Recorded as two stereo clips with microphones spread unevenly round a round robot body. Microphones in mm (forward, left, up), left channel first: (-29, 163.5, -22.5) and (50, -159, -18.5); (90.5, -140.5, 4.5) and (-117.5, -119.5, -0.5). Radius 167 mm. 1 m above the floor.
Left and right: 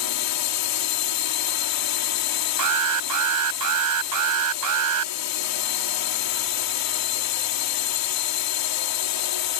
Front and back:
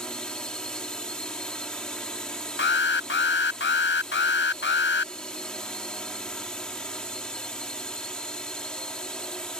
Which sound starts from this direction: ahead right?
An alarm, at 2.6 s.